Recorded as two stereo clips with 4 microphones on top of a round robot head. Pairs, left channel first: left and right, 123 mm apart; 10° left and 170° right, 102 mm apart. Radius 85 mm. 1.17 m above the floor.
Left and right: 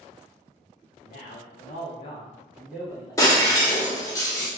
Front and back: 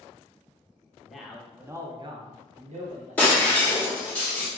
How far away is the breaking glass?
About 0.7 m.